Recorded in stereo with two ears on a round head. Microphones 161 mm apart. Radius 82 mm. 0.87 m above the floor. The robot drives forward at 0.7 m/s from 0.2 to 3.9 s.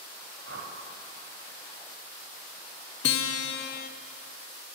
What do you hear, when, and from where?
0.5 s a whoosh: 70° right (ahead or behind), 1.8 m
3.0 s a guitar: 65° left (ahead or behind), 0.6 m; by 3.9 s 50° left (ahead or behind), 0.7 m